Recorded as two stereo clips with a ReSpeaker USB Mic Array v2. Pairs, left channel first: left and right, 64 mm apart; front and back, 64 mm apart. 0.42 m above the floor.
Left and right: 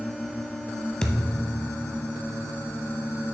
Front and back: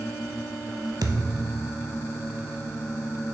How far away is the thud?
About 0.7 m.